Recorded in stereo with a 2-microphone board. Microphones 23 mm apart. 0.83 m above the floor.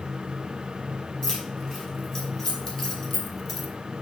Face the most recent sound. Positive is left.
turn(degrees=5)  # may be behind; listen again after turning